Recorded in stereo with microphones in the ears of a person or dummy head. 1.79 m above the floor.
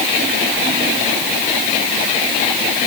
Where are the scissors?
No scissors in this recording.